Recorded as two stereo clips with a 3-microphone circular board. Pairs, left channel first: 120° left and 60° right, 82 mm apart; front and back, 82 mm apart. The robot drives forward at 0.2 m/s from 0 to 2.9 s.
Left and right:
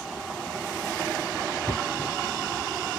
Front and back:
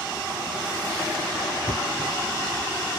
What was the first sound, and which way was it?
Knocking, 175° left.